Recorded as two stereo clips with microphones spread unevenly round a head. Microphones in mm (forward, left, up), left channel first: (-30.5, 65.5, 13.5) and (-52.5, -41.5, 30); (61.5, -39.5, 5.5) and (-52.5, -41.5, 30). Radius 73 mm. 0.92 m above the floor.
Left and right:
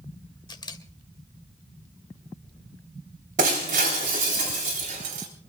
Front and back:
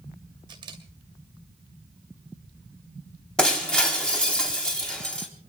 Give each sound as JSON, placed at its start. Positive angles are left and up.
{"t": 0.5, "sound": "a camera shutter", "azimuth_deg": 120, "distance_m": 2.5}
{"t": 3.4, "sound": "breaking glass", "azimuth_deg": -80, "distance_m": 3.5}